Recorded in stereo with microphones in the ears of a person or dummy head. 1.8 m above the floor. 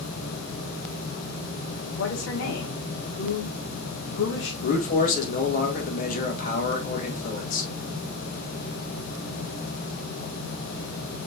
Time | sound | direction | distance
1.9 | a woman speaking | 75° left (ahead or behind) | 1.1 m
4.6 | a man speaking | 45° left (ahead or behind) | 2 m